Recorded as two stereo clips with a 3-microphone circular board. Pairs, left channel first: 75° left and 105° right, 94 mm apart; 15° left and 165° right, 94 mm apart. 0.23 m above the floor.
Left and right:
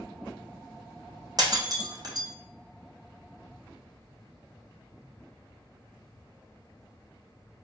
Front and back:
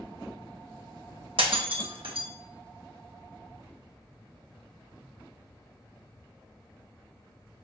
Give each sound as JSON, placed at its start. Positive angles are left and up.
{"t": 1.4, "sound": "breaking glass", "azimuth_deg": -150, "distance_m": 0.9}